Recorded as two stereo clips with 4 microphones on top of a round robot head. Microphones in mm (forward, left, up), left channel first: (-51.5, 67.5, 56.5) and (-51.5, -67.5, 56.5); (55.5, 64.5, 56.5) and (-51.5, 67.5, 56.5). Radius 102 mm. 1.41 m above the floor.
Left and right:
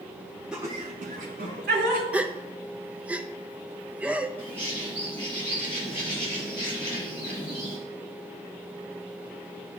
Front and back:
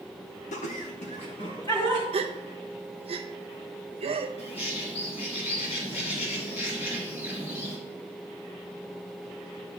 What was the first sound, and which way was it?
Laughter, 5° right.